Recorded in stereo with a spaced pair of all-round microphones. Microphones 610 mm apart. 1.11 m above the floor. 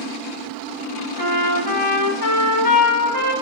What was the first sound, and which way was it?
A trumpet, 15° left (ahead or behind).